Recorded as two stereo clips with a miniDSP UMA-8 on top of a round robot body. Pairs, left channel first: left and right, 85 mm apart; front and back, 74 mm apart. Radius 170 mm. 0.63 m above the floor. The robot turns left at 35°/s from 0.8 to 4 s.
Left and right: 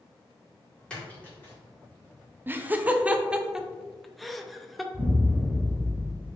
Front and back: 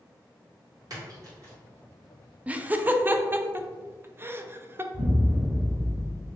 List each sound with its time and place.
0.9 s a splash: 165° left, 1.9 m; by 1.5 s 145° left, 1.9 m
2.5 s laughter: 130° right, 0.5 m; by 4.8 s straight behind, 0.5 m
4.9 s an explosion: straight behind, 0.6 m